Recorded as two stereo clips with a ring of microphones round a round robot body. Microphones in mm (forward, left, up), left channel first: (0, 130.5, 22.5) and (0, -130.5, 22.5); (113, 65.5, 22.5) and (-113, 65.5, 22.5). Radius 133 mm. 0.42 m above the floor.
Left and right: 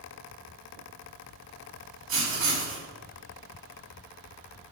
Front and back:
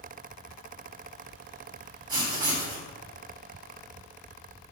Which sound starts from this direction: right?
Writing, at 2.1 s.